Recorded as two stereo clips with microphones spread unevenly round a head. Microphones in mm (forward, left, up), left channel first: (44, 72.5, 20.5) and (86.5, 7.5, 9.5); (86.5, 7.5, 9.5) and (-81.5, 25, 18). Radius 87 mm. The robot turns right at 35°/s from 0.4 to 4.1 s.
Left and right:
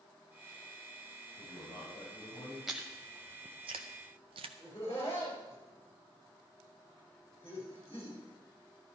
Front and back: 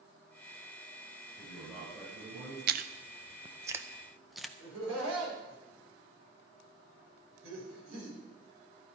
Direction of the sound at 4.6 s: Straight behind.